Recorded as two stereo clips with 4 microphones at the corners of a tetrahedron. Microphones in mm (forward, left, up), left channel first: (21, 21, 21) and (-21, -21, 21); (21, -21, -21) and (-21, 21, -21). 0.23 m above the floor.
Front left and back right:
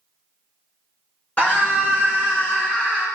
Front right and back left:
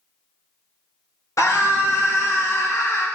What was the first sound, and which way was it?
A scream, 15° right.